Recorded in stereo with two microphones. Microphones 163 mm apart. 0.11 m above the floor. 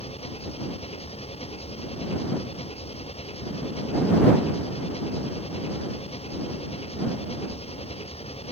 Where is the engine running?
40° left (ahead or behind).